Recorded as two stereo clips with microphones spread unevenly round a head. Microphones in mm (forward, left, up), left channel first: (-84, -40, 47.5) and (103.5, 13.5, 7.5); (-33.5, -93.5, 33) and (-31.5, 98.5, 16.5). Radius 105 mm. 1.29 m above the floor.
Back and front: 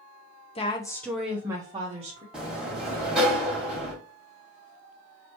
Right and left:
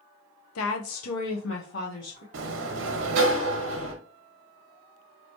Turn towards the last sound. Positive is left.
turn(degrees=105)